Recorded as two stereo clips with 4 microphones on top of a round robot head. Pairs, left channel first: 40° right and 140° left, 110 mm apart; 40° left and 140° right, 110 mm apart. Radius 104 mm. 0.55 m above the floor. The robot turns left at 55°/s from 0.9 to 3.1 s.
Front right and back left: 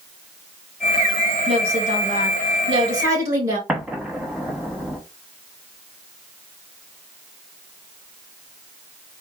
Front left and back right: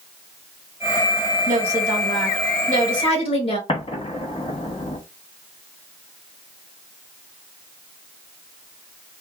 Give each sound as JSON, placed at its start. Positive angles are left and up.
{"t": 1.5, "sound": "a woman speaking", "azimuth_deg": 170, "distance_m": 3.0}
{"t": 3.7, "sound": "an explosion", "azimuth_deg": 65, "distance_m": 1.5}